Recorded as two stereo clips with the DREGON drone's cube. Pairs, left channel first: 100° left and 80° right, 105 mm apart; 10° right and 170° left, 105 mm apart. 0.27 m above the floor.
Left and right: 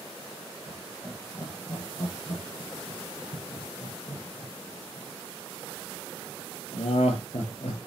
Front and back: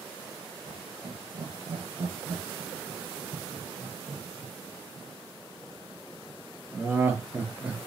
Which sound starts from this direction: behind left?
Laughter, at 0.7 s.